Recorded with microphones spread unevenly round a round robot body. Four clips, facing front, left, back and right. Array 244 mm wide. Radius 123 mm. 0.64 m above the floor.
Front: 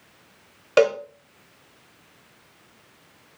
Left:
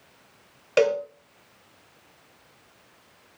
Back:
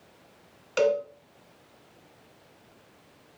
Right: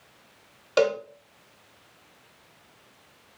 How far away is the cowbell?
About 0.8 m.